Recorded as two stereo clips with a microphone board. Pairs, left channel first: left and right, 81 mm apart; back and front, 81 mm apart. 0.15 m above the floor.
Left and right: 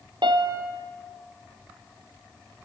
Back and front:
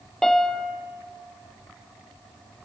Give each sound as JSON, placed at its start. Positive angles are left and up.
{"t": 0.2, "sound": "a piano", "azimuth_deg": -95, "distance_m": 2.0}